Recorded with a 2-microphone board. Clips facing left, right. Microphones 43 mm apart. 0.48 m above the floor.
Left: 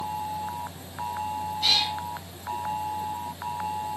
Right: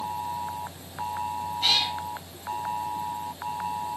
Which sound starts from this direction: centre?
A cat meowing, at 1.6 s.